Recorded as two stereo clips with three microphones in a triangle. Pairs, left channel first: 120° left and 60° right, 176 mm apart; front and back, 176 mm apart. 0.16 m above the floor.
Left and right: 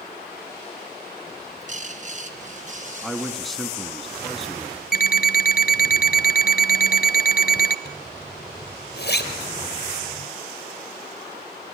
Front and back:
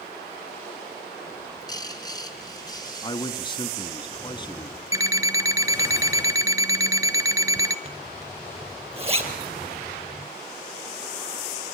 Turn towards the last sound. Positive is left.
turn(degrees=125)